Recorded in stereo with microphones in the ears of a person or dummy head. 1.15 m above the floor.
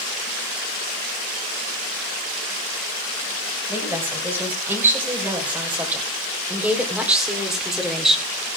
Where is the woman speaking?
15° right (ahead or behind), 6 m; by 8.2 s centre (ahead or behind), 3.5 m.